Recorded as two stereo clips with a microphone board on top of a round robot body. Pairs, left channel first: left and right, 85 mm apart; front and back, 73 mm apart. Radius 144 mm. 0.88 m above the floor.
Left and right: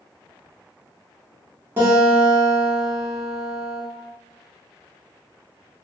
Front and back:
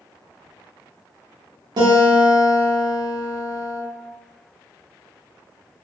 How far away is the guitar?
About 0.6 m.